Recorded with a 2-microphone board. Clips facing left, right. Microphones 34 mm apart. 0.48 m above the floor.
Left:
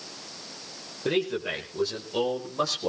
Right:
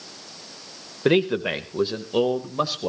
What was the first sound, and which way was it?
A man speaking, 45° right (ahead or behind).